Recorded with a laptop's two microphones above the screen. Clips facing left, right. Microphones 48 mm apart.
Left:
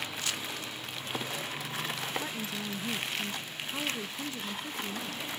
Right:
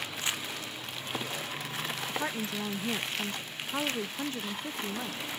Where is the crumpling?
25° right (ahead or behind), 1.9 m.